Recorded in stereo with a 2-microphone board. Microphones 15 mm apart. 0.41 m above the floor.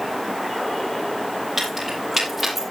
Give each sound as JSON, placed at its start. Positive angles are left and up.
{"t": 1.6, "sound": "keys jangling", "side_deg": -25, "distance_m": 8.5}